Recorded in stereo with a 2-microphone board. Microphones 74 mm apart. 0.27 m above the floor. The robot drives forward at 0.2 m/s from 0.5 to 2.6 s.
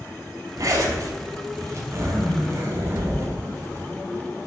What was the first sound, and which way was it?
A zipper, 50° right (ahead or behind).